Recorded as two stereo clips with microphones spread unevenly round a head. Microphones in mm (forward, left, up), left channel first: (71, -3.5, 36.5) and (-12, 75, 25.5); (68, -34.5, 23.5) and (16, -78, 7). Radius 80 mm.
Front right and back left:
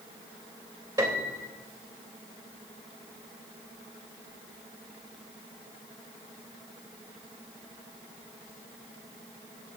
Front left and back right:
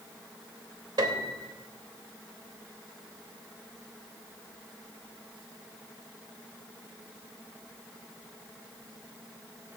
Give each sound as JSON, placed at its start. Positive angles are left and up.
{"t": 1.0, "sound": "a piano", "azimuth_deg": -155, "distance_m": 2.5}